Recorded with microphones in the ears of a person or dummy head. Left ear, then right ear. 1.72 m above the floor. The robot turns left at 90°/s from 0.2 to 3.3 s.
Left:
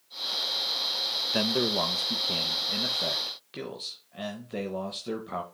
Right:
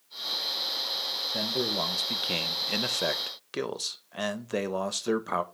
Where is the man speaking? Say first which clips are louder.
Left 3 dB; 50° left, 0.6 m; by 5.4 s 125° right, 0.6 m.